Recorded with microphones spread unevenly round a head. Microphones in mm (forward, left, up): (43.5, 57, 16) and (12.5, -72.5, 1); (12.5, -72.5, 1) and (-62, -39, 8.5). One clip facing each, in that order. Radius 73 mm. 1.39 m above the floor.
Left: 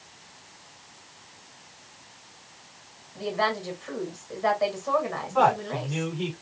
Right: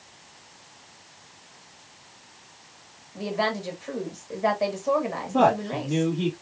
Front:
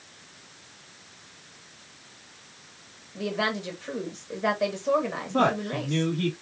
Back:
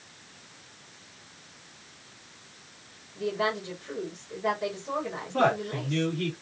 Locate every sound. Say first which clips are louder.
3.1 s a woman speaking: even, even; 35° right, 1.8 m
5.3 s a man speaking: right 2 dB, even; 80° right, 3.5 m